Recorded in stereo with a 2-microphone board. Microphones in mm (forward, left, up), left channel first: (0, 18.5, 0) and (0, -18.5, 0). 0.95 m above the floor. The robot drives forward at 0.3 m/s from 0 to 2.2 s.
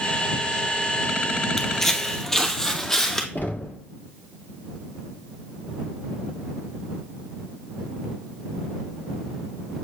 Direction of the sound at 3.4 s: 60° left (ahead or behind).